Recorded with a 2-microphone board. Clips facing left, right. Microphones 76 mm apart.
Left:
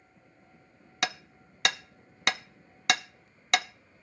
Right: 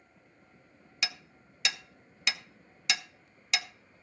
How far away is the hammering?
About 0.5 m.